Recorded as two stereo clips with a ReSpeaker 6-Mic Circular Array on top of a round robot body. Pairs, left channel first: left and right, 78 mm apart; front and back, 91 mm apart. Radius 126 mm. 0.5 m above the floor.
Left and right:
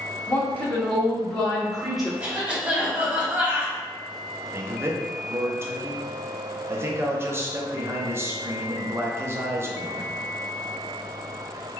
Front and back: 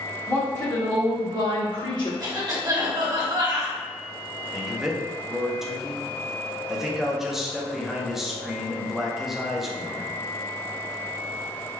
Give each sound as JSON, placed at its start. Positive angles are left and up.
{"t": 0.3, "sound": "a woman speaking", "azimuth_deg": 50, "distance_m": 1.1}
{"t": 2.2, "sound": "a cough", "azimuth_deg": -155, "distance_m": 1.6}
{"t": 4.5, "sound": "a man speaking", "azimuth_deg": -95, "distance_m": 0.7}